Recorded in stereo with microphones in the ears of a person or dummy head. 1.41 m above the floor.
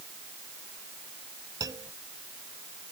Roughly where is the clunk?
Centre.